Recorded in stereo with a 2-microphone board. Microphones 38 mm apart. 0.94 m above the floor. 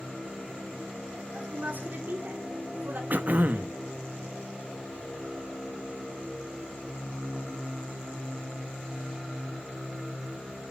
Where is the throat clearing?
50° right (ahead or behind), 1.1 m.